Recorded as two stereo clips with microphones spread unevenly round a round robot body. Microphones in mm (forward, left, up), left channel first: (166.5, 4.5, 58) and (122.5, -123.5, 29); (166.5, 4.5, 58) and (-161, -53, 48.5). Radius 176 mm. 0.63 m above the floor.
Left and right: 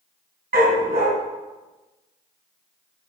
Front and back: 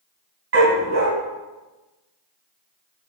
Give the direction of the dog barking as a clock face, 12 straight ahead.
4 o'clock.